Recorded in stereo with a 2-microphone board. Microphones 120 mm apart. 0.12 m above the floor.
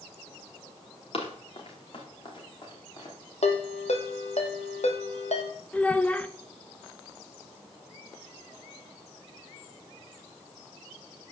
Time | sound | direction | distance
1.1 | running footsteps | 55° left (ahead or behind) | 5.5 m
3.4 | a ringtone | 75° left (ahead or behind) | 2.5 m
5.7 | a child speaking | 10° left (ahead or behind) | 0.8 m